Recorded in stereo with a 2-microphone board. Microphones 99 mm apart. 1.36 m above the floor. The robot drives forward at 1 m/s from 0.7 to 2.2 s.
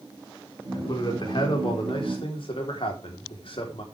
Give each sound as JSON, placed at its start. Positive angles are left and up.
{"t": 0.7, "sound": "a man speaking", "side_deg": 50, "distance_m": 5.0}